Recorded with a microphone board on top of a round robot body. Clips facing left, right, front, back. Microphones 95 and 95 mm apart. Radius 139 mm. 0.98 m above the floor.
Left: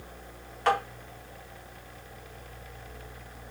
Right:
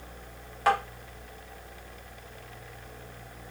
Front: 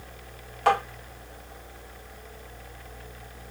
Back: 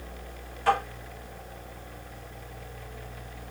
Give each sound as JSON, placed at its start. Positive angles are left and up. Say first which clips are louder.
{"t": 0.7, "sound": "tapping", "louder": "right 1 dB, front 2 dB", "azimuth_deg": -10, "distance_m": 2.5}